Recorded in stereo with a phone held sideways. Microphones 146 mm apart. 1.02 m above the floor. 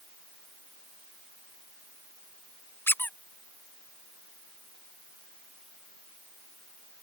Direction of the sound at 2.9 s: 15° left (ahead or behind).